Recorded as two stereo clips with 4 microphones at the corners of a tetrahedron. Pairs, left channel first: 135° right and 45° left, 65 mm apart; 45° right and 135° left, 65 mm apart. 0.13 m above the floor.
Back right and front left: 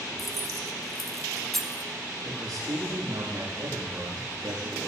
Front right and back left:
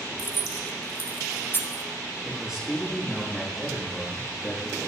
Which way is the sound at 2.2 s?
55° left.